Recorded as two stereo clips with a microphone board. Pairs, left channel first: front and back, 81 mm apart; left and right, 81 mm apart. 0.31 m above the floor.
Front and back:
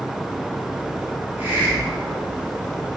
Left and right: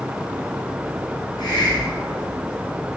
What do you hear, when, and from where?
1.4 s a hiss: 115° left, 3 m